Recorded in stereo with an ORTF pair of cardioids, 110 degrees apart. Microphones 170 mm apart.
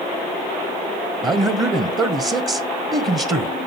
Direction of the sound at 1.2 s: 25° right.